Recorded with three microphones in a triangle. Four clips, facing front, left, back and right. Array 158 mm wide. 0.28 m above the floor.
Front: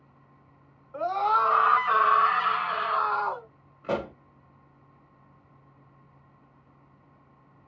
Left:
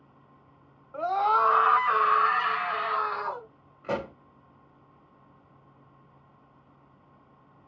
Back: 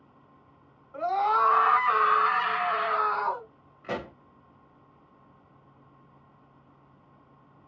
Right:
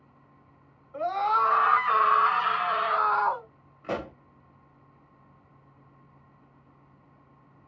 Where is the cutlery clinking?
I don't hear cutlery clinking.